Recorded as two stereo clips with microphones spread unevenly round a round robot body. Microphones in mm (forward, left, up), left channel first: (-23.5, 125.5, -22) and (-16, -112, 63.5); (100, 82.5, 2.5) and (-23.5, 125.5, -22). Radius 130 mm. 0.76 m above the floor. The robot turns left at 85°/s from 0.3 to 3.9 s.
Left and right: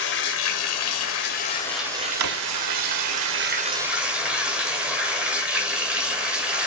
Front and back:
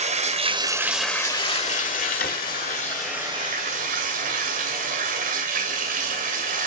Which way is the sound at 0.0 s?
130° left.